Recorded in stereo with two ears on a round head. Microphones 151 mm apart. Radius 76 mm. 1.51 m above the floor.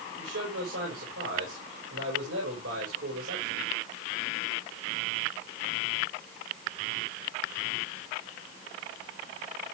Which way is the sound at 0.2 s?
80° right.